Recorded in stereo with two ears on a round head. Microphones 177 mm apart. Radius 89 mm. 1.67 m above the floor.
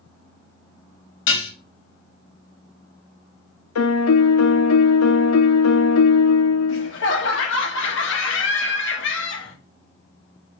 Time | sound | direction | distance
1.3 | dishes clattering | 65° left (ahead or behind) | 2.0 m
3.8 | a piano | 90° left | 0.6 m
6.7 | laughter | 65° left (ahead or behind) | 1.4 m